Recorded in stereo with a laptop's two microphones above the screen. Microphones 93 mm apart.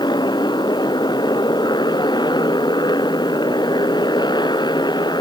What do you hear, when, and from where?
0.0 s a motorcycle: 50° left (ahead or behind)